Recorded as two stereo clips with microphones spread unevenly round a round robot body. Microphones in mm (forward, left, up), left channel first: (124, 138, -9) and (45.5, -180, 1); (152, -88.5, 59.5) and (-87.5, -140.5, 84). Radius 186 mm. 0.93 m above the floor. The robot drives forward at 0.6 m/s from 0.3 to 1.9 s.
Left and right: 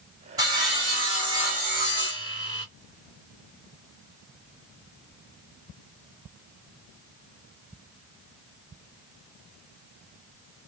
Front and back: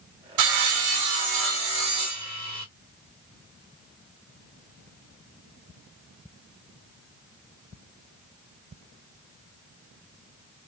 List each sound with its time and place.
0.4 s sawing: 175° left, 0.7 m; by 2.6 s straight behind, 1.6 m